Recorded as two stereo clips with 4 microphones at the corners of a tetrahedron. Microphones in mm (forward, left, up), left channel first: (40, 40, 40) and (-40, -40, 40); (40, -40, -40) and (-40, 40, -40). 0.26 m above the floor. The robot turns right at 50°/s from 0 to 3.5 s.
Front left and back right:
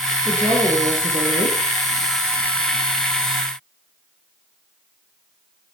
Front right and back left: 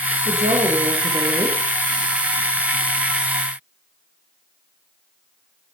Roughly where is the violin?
No violin in this recording.